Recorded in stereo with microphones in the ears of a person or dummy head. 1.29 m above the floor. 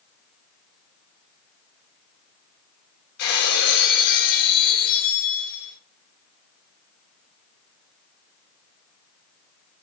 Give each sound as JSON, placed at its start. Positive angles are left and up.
{"t": 3.2, "sound": "breaking glass", "side_deg": 80, "distance_m": 7.5}